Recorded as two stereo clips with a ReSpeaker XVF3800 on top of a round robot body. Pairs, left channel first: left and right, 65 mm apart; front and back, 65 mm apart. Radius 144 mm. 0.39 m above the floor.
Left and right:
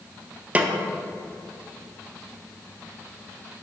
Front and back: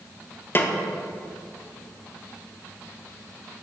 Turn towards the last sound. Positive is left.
turn(degrees=-35)